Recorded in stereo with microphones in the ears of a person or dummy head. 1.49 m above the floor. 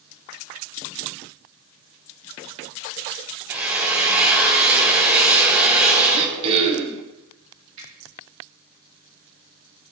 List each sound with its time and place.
3.5 s a drill: 10° right (ahead or behind), 1.5 m
6.1 s throat clearing: 35° right (ahead or behind), 1.0 m
7.8 s a finger snap: 75° right (ahead or behind), 3 m